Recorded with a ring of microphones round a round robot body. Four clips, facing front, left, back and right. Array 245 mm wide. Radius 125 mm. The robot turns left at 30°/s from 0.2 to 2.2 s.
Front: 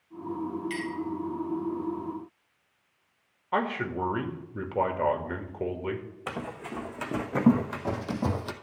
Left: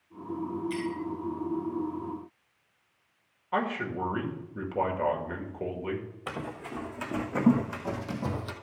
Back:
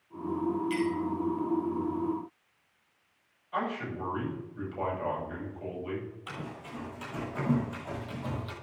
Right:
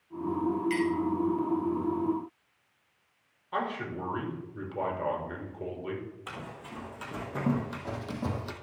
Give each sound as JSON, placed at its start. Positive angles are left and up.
{"t": 0.7, "sound": "a clink", "azimuth_deg": -50, "distance_m": 4.0}
{"t": 3.5, "sound": "a man speaking", "azimuth_deg": 15, "distance_m": 2.0}
{"t": 6.3, "sound": "running footsteps", "azimuth_deg": 30, "distance_m": 2.5}